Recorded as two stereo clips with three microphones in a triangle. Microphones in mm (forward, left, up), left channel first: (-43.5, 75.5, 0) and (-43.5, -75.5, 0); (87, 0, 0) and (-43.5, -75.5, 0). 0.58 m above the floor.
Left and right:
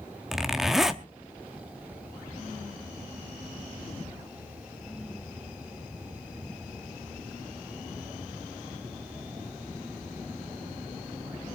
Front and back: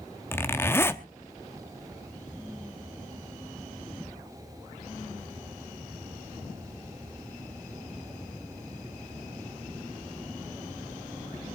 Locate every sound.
0.3 s a zipper: 10° right, 1.0 m